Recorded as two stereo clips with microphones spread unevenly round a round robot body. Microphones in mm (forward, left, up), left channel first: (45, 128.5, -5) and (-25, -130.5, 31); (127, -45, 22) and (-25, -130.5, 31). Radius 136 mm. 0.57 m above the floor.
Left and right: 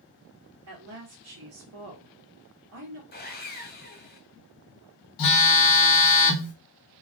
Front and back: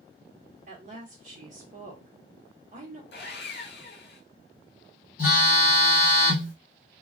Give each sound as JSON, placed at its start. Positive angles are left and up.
{"t": 0.7, "sound": "a woman speaking", "azimuth_deg": -130, "distance_m": 1.1}
{"t": 3.1, "sound": "sawing", "azimuth_deg": 25, "distance_m": 0.8}
{"t": 5.2, "sound": "a phone buzzing", "azimuth_deg": 90, "distance_m": 0.9}